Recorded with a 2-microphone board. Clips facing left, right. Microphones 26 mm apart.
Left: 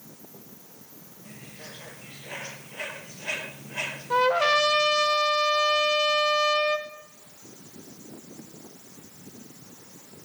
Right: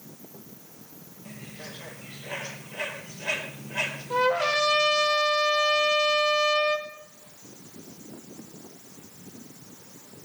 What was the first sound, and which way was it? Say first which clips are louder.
A bird: right 3 dB; 10° right (ahead or behind).